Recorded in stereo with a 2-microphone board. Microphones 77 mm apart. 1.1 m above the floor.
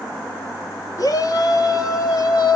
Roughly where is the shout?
Left.